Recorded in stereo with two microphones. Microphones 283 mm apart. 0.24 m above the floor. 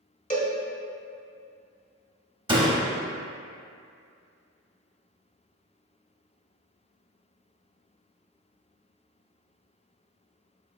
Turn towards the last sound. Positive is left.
turn(degrees=-15)  # may be behind; listen again after turning